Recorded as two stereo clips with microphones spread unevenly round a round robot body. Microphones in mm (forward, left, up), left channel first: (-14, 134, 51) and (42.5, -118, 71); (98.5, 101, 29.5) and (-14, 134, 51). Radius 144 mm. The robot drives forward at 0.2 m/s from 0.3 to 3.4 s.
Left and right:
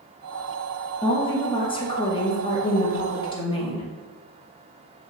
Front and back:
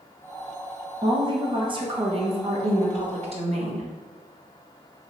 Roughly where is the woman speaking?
Behind left.